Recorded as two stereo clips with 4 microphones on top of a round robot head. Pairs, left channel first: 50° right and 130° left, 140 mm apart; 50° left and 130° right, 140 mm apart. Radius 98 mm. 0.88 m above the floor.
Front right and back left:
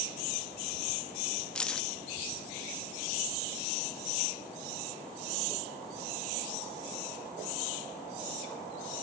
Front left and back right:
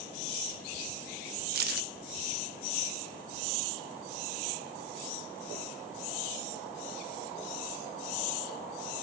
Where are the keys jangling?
135° right.